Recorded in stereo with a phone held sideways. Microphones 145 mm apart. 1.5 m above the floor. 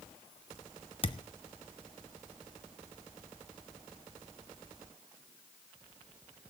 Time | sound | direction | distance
1.0 | a thud | 40° left (ahead or behind) | 0.9 m